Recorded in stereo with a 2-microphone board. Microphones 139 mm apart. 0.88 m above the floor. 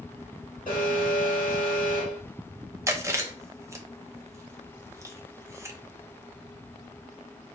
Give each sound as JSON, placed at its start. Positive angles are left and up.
{"t": 0.7, "sound": "an alarm", "side_deg": 75, "distance_m": 2.0}
{"t": 2.9, "sound": "chewing", "side_deg": -20, "distance_m": 0.5}